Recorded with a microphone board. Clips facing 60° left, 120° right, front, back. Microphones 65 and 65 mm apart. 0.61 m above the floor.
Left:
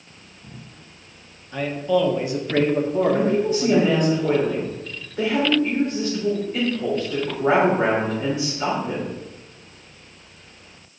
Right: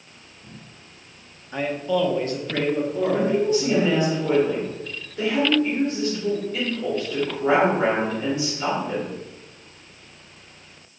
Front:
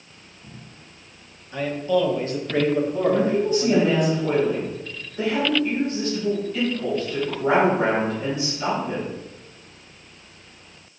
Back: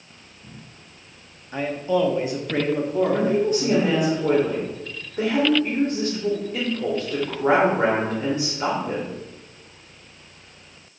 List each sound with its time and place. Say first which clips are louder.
1.5 s a man speaking: left 2 dB, front 1 dB; 160° right, 0.8 m; by 4.1 s 90° left, 1.8 m
3.1 s a woman speaking: left 1 dB, front 2 dB; 130° left, 2 m